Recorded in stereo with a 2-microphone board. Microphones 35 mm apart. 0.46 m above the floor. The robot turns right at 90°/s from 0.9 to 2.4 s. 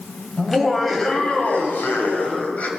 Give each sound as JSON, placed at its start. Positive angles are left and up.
{"t": 0.4, "sound": "laughter", "azimuth_deg": 0, "distance_m": 2.0}